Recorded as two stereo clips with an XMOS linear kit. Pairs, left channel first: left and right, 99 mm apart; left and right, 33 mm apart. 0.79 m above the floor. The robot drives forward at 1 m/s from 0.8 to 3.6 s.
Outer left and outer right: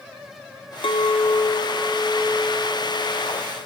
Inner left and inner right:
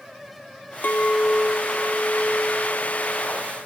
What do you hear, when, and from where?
0.8 s a clink: 75° left (ahead or behind), 0.6 m; by 3.6 s 10° left (ahead or behind), 2.5 m